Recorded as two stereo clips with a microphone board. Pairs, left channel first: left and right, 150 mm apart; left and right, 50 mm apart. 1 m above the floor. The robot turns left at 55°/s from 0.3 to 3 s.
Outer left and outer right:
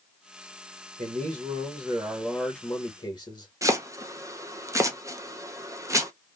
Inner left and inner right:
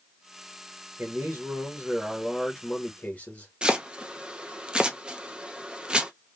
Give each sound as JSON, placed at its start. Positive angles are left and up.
{"t": 1.0, "sound": "a man speaking", "azimuth_deg": -115, "distance_m": 1.0}
{"t": 3.6, "sound": "chopping", "side_deg": -20, "distance_m": 0.6}